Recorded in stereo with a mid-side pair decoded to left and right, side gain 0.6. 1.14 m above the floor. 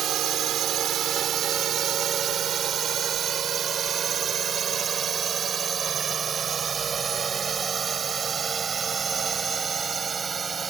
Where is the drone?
55° right; by 10.7 s 35° right.